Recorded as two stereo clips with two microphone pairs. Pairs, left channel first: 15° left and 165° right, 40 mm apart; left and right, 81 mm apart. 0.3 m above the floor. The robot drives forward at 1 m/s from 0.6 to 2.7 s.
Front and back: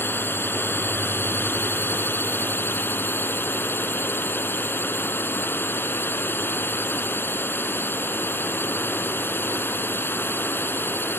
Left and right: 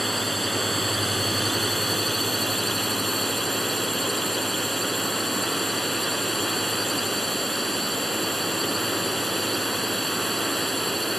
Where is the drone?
Straight ahead.